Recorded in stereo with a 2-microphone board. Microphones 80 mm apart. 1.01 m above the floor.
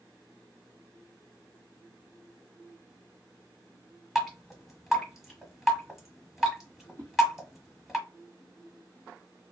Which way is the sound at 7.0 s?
55° right (ahead or behind).